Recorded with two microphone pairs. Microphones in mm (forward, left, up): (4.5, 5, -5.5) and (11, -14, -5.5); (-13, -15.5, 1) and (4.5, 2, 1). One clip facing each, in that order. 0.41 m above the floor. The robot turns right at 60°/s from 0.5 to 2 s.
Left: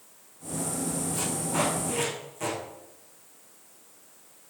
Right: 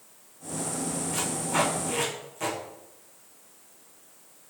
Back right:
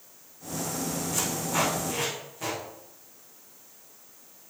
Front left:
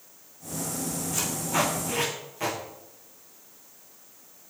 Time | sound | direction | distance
1.1 | tape being pulled | 45° right | 5.5 m